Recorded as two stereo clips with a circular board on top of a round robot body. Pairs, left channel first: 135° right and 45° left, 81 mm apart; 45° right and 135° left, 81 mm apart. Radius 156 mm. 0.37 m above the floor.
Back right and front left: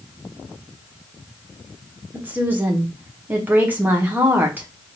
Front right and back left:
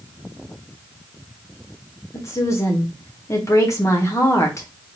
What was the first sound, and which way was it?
A woman speaking, 15° right.